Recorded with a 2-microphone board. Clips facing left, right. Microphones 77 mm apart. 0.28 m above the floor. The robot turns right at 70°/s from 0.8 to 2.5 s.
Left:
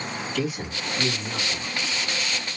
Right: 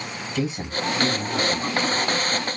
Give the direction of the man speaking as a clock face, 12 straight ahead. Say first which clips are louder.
Right 4 dB; 4 o'clock.